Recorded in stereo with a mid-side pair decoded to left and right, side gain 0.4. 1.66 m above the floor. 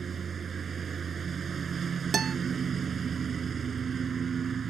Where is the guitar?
50° right.